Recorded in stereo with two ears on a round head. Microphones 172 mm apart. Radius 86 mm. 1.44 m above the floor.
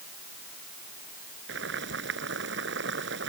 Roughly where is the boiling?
Right.